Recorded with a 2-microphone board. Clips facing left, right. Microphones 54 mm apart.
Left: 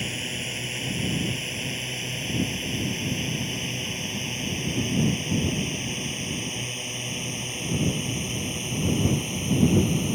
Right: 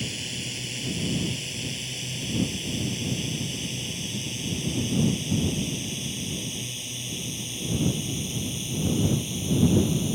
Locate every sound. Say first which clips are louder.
0.0 s a drone: left 3 dB; 30° left (ahead or behind); by 10.2 s 45° left (ahead or behind)